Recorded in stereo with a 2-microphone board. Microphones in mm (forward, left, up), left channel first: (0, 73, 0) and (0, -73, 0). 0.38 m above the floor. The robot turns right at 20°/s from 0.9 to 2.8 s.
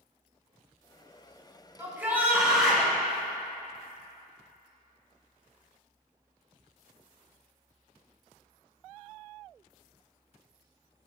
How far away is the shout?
About 3.5 m.